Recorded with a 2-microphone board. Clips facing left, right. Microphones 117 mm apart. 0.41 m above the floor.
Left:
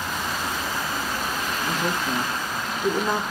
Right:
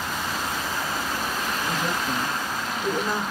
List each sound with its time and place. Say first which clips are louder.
1.7 s a woman speaking: left 2 dB; 65° left (ahead or behind), 2.5 m